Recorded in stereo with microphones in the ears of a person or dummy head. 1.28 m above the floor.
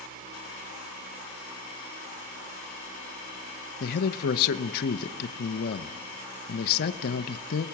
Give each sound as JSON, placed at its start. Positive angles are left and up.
{"t": 3.8, "sound": "a man speaking", "side_deg": 55, "distance_m": 0.9}